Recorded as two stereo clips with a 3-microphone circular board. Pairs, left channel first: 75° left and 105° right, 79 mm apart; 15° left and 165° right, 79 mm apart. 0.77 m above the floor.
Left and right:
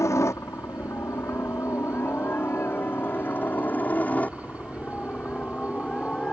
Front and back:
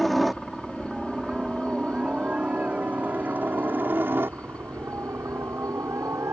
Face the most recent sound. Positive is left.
turn(degrees=150)